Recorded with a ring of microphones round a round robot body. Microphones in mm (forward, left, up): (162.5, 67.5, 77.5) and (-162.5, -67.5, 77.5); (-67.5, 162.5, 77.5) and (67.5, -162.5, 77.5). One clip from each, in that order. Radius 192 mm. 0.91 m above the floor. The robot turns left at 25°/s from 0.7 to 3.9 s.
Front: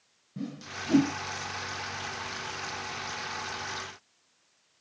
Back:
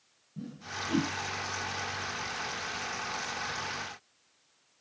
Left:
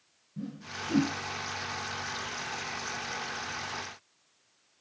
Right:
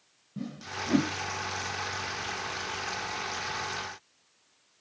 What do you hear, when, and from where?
0.4 s a whoosh: 10° right, 0.6 m; by 1.1 s 25° right, 0.6 m